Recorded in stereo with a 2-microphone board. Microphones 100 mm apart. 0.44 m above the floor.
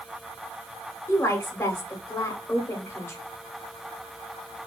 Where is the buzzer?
No buzzer in this recording.